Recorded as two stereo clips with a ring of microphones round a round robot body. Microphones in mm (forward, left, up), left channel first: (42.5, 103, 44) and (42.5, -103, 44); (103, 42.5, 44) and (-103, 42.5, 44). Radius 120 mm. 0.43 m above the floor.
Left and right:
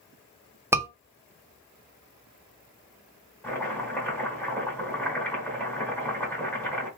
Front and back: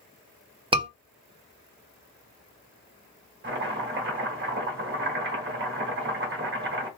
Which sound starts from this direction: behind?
Chopping, at 3.4 s.